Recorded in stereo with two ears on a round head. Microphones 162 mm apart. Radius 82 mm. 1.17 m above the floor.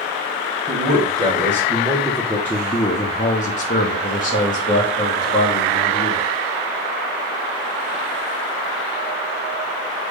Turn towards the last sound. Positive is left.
turn(degrees=45)  # may be behind; listen again after turning